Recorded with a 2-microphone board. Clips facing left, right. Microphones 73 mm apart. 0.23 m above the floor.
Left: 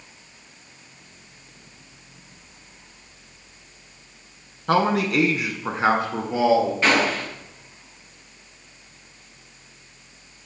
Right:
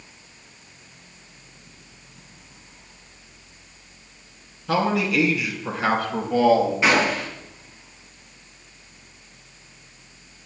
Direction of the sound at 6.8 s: 5° right (ahead or behind).